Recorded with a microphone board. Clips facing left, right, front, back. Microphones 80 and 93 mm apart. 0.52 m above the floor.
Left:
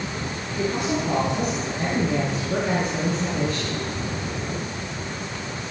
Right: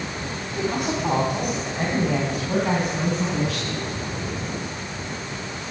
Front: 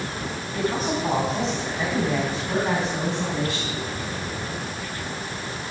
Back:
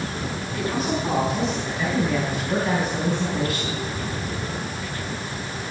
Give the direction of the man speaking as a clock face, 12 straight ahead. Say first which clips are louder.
Even, front 1 dB; 2 o'clock.